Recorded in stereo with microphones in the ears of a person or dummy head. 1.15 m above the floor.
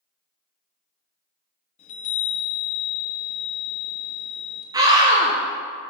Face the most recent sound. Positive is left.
turn(degrees=-20)  # may be behind; listen again after turning